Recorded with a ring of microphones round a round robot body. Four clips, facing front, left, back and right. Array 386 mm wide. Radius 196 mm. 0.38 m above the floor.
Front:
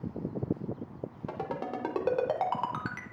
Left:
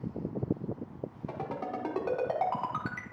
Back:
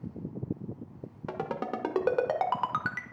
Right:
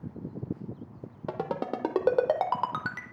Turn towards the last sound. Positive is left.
turn(degrees=-105)